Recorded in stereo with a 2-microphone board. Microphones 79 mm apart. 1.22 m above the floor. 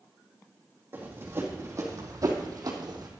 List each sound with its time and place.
0.9 s running footsteps: 25° right (ahead or behind), 2.5 m; by 3.1 s 55° right (ahead or behind), 2 m